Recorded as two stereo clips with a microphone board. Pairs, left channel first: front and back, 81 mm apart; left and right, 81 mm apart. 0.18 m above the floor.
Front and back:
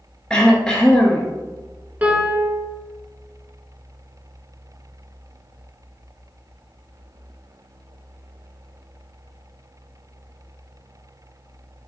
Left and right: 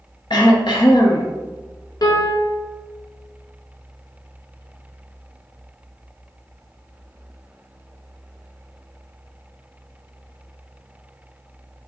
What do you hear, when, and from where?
0.3 s throat clearing: 80° left, 0.7 m
2.0 s a piano: 110° left, 0.7 m